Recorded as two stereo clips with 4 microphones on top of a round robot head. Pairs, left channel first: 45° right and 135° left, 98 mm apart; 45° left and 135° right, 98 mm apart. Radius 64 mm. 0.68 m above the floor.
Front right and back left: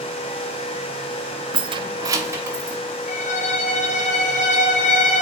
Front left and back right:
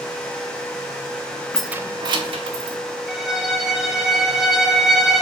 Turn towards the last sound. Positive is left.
turn(degrees=-50)